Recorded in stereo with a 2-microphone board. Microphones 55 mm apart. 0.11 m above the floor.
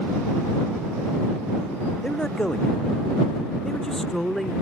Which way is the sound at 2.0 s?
15° left (ahead or behind).